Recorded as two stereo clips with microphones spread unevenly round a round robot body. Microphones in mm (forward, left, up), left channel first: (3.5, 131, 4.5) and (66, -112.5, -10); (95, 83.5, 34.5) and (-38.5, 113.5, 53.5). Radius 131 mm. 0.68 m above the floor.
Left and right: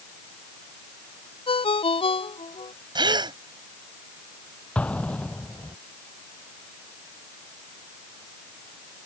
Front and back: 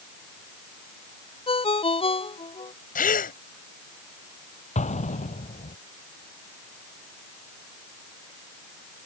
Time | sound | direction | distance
1.5 | a ringtone | 35° left | ?
3.0 | a gasp | straight ahead | ?
4.8 | an explosion | 20° left | ?